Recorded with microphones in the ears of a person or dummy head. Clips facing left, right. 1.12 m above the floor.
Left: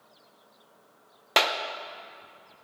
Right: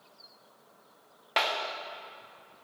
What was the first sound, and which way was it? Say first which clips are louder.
A clap: left 4 dB; 50° left (ahead or behind).